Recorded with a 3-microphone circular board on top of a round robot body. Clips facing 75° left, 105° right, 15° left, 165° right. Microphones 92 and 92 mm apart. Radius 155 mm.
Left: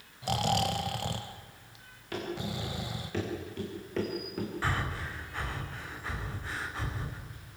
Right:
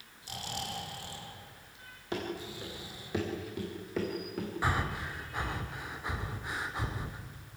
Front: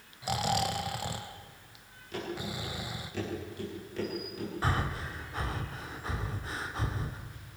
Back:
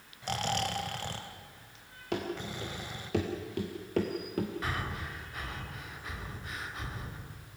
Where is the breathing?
35° right, 2 m.